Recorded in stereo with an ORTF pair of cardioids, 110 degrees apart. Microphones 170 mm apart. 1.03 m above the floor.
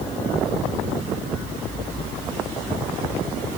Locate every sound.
Only background noise.